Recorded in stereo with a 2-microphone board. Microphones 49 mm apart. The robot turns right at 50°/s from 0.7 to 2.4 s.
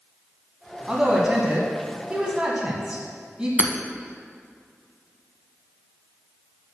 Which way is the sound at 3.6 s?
25° right (ahead or behind).